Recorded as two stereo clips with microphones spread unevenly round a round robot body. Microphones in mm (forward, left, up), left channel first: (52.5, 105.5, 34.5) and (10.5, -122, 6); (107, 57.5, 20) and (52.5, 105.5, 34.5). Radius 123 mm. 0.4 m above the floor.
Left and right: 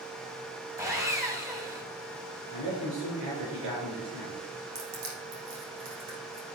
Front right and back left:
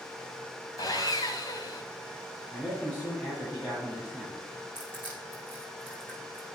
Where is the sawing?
25° right, 2.5 m.